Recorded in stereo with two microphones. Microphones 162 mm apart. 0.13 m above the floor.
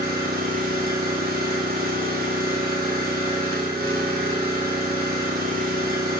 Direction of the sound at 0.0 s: 70° right (ahead or behind).